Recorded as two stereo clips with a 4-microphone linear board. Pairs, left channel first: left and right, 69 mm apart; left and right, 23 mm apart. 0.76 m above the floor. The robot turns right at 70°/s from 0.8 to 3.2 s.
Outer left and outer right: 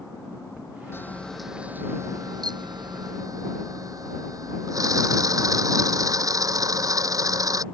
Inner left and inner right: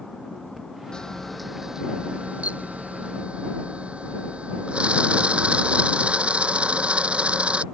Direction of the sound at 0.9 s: 35° left (ahead or behind).